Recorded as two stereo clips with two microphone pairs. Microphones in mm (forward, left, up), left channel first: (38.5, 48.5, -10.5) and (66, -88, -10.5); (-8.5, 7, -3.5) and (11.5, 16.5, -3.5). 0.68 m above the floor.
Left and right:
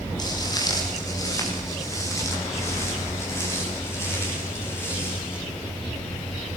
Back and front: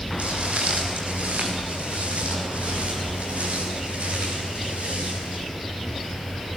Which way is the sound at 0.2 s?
40° left.